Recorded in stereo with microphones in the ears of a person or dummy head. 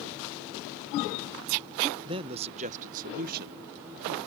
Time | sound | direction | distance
2.0 | a man speaking | 25° right (ahead or behind) | ?